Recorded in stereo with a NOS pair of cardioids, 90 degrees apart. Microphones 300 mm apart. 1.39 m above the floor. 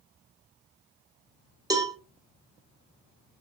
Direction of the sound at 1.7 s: 10° right.